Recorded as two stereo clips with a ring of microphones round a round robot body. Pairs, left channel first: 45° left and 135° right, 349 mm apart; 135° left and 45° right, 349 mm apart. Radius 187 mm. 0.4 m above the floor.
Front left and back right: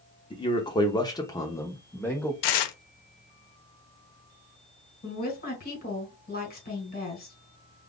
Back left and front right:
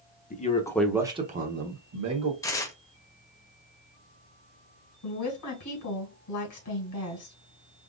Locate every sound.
0.3 s a man speaking: 105° left, 0.9 m; by 2.3 s 40° right, 1.2 m
2.4 s tearing paper: 55° left, 0.6 m
5.0 s a woman speaking: 105° left, 2.5 m